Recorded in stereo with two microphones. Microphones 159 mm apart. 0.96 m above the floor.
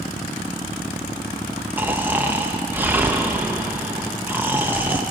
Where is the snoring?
10° right (ahead or behind), 0.9 m.